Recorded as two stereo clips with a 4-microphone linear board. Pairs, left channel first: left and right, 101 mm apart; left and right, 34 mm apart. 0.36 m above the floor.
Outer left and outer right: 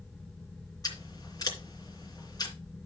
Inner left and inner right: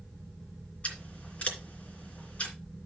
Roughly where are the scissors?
Left.